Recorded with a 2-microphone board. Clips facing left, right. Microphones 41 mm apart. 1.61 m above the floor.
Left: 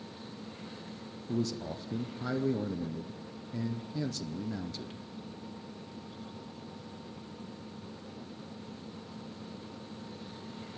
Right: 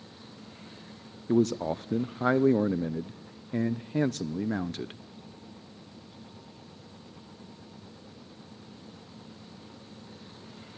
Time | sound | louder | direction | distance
1.3 | a man speaking | right 9 dB | 45° right (ahead or behind) | 0.5 m